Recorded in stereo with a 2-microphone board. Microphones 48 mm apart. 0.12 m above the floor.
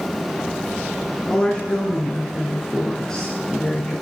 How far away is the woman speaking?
About 1.2 m.